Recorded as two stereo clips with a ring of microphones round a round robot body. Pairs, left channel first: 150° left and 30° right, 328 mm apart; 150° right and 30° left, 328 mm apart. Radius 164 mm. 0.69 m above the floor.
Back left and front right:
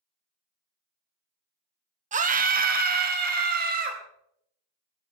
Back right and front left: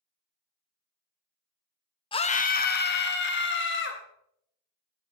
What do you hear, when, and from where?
2.1 s a scream: 85° right, 0.9 m; by 4.0 s 95° right, 3 m